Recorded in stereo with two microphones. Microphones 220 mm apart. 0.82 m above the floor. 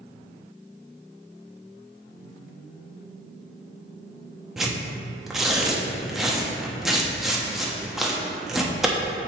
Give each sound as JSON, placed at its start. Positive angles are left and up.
{"t": 4.6, "sound": "tearing paper", "side_deg": 0, "distance_m": 0.9}